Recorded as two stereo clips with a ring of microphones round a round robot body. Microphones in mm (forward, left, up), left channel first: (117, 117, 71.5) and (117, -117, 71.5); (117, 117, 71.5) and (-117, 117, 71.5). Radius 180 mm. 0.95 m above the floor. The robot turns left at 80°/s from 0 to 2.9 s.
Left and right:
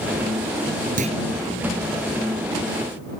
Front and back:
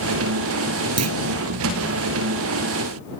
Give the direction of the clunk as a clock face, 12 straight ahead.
5 o'clock.